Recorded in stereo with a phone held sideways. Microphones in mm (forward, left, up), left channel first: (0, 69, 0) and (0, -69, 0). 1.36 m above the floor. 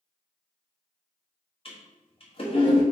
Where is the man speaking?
I don't hear a man speaking.